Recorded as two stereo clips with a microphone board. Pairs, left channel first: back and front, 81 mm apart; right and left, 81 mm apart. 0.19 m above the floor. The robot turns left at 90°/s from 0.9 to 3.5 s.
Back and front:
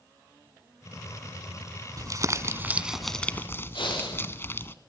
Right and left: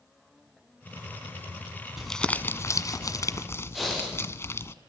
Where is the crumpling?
5° left, 1.4 m; by 4.7 s 135° right, 1.4 m.